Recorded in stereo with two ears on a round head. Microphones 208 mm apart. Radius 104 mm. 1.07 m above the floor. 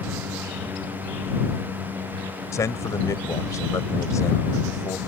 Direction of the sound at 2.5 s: 15° left (ahead or behind).